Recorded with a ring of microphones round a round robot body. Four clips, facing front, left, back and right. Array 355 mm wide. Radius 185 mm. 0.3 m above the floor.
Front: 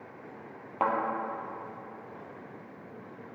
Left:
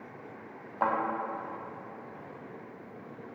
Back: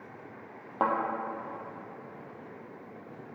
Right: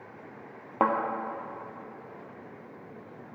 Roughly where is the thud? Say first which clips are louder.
Right 4 dB, even; right.